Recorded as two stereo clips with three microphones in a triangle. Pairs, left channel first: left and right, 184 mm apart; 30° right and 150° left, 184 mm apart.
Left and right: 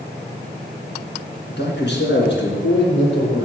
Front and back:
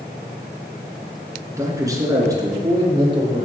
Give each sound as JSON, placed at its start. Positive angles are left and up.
{"t": 1.5, "sound": "a man speaking", "azimuth_deg": 75, "distance_m": 3.0}